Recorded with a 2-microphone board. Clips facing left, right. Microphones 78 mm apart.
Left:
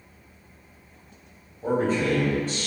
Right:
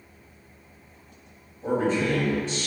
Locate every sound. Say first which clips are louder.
1.6 s a man speaking: left 1 dB; 40° left (ahead or behind), 1.1 m; by 2.7 s 45° left (ahead or behind), 1.5 m